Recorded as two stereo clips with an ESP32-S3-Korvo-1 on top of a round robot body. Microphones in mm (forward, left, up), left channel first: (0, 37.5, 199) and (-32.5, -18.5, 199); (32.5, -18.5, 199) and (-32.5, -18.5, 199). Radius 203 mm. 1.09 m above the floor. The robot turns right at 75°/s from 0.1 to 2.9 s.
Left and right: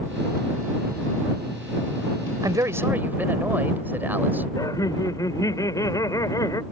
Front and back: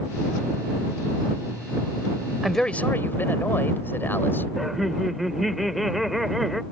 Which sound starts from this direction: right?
A man speaking, at 2.4 s.